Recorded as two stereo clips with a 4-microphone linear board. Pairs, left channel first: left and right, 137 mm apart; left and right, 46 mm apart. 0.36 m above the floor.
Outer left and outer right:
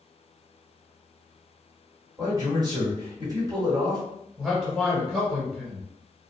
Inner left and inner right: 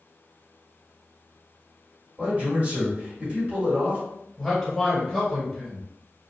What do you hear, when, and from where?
2.2 s a man speaking: 30° right (ahead or behind), 1.4 m
4.4 s a man speaking: centre (ahead or behind), 1.7 m